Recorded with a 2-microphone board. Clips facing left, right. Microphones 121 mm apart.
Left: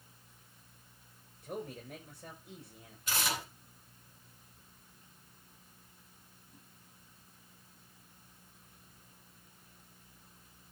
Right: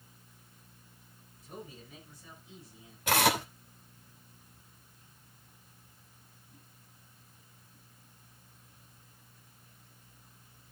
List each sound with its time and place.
1.4 s a man speaking: 65° left (ahead or behind), 6 m
3.1 s tearing paper: 85° right, 2.5 m